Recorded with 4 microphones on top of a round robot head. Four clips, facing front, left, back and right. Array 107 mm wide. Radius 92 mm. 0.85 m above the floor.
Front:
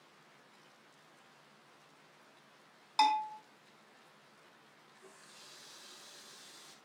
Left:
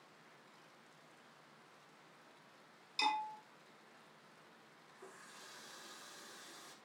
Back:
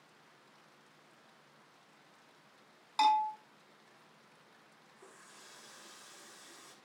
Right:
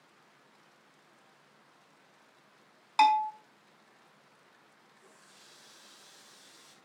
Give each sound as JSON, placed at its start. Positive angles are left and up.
{"t": 3.0, "sound": "a bell", "azimuth_deg": -85, "distance_m": 5.5}
{"t": 5.0, "sound": "a running tap", "azimuth_deg": 135, "distance_m": 5.0}